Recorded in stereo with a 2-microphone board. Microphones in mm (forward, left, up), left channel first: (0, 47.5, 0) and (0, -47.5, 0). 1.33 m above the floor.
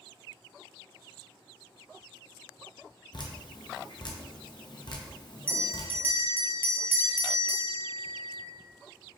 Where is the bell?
20° right (ahead or behind), 0.6 m.